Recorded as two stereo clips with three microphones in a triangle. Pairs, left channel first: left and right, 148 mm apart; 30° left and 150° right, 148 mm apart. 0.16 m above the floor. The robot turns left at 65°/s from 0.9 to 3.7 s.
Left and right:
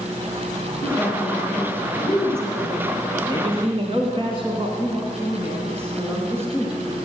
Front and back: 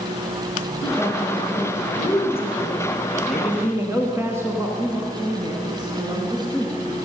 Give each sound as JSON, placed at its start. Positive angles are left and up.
{"t": 0.8, "sound": "a woman speaking", "azimuth_deg": 75, "distance_m": 4.0}
{"t": 3.2, "sound": "a man speaking", "azimuth_deg": -55, "distance_m": 1.4}
{"t": 4.8, "sound": "a woman speaking", "azimuth_deg": -145, "distance_m": 1.8}